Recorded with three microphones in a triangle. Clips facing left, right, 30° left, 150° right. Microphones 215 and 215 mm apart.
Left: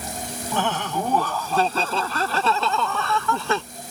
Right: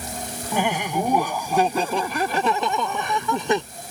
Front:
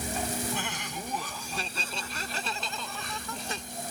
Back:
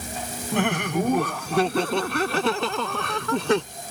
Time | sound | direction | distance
0.5 | laughter | 170° right | ?